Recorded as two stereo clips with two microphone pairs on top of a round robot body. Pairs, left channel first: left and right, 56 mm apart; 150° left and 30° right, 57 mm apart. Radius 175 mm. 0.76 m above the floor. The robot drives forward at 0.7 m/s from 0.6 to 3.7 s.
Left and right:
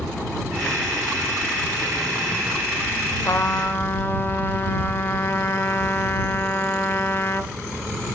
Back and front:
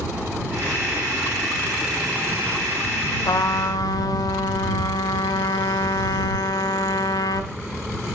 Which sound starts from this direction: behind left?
A trumpet, at 3.2 s.